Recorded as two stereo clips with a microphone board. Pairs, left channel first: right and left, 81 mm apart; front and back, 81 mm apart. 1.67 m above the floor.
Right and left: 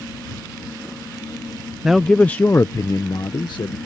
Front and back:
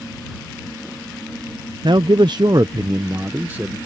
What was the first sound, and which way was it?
A man speaking, 175° left.